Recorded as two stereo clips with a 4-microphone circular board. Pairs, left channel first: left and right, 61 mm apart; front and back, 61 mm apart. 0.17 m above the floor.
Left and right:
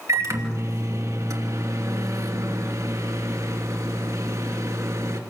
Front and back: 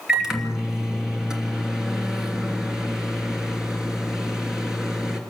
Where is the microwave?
100° right, 2.5 m.